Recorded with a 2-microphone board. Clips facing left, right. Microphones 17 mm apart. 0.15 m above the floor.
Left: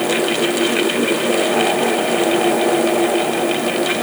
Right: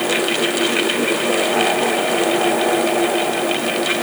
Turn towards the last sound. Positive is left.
No sound to turn to.